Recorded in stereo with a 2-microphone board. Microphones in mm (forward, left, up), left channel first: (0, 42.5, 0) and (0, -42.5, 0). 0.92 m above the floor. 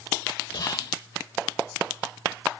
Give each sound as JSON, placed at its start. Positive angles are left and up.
{"t": 0.5, "sound": "whispering", "side_deg": 50}